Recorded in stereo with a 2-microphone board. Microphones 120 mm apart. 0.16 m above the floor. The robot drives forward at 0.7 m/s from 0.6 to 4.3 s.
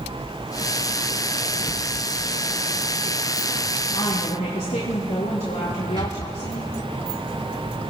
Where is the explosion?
40° right (ahead or behind), 2 m.